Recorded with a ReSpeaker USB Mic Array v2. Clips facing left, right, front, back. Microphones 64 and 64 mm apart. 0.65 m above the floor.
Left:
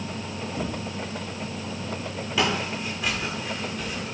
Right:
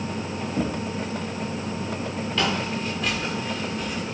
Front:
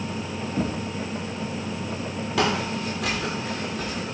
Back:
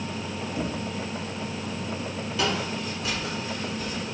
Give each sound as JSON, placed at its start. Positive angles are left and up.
{"t": 0.6, "sound": "knocking", "azimuth_deg": -45, "distance_m": 4.0}
{"t": 2.4, "sound": "footsteps", "azimuth_deg": 10, "distance_m": 9.5}